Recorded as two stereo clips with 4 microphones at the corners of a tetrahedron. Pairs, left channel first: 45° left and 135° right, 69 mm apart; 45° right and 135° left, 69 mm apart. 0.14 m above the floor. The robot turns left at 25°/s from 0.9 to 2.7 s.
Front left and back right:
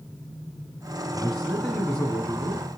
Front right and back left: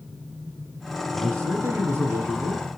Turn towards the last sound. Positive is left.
turn(degrees=100)